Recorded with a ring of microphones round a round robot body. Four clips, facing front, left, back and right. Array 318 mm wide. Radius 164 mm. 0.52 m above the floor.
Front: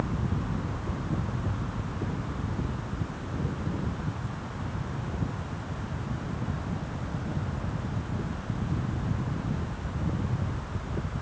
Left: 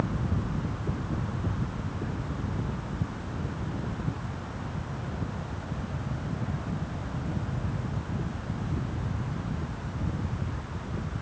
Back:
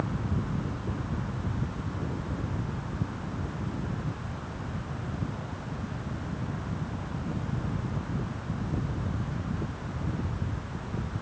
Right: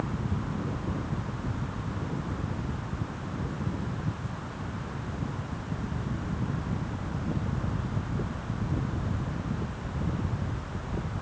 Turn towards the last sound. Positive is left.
No sound to turn to.